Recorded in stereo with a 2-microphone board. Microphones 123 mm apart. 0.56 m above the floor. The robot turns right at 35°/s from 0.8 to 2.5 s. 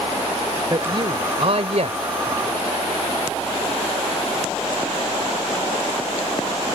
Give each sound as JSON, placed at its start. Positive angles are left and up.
{"t": 0.7, "sound": "a man speaking", "azimuth_deg": -140}